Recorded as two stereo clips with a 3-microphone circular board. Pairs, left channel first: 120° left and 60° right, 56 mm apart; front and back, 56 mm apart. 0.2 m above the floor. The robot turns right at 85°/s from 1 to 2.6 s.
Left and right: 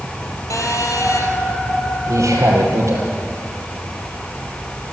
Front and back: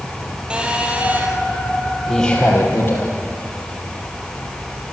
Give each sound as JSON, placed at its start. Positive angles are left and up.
{"t": 0.5, "sound": "a phone buzzing", "azimuth_deg": 105, "distance_m": 3.0}
{"t": 2.1, "sound": "a man speaking", "azimuth_deg": -95, "distance_m": 5.5}